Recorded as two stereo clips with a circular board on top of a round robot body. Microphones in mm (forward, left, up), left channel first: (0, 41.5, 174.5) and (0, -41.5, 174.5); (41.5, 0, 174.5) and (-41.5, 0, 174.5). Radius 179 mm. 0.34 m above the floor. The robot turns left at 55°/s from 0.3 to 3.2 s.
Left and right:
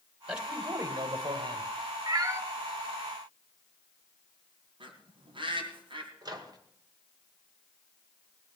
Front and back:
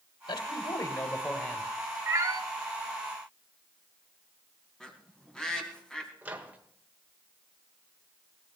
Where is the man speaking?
10° right, 2.5 m; by 1.7 s 85° right, 2.5 m.